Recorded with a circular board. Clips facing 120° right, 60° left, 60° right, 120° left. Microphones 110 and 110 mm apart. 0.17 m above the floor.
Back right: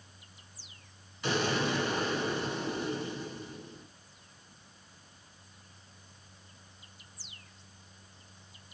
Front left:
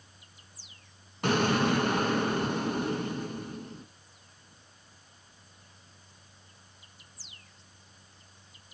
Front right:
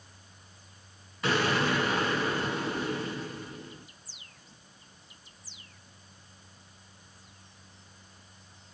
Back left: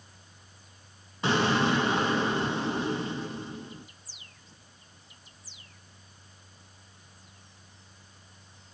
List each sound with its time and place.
1.2 s an explosion: 60° left, 0.8 m